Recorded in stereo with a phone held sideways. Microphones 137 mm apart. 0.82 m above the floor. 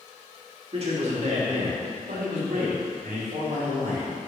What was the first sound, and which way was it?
A man speaking, 45° right (ahead or behind).